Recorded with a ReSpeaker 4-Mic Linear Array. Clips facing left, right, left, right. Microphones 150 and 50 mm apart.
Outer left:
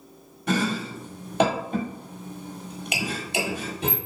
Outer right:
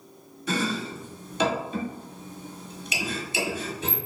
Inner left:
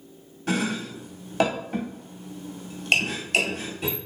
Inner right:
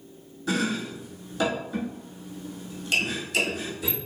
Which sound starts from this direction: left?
Chopping, at 0.5 s.